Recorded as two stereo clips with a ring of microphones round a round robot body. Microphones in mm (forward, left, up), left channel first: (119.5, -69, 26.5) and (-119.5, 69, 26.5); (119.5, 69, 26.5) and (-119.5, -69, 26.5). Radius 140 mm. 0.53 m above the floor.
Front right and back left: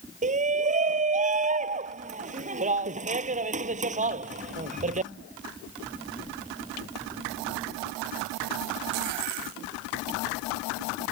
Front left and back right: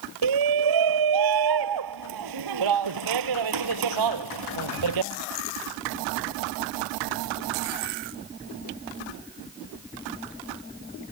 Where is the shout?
145° right.